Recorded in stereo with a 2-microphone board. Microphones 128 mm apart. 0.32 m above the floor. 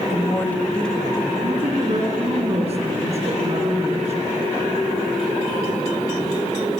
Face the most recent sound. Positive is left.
turn(degrees=-50)  # may be behind; listen again after turning